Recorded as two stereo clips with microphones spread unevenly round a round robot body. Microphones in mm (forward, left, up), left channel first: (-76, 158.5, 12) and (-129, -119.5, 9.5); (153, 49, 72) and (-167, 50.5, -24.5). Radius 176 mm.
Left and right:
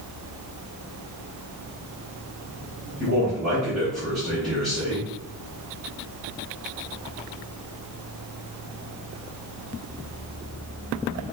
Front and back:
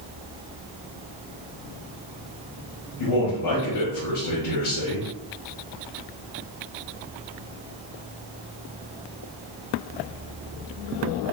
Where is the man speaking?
10° right, 1.6 m.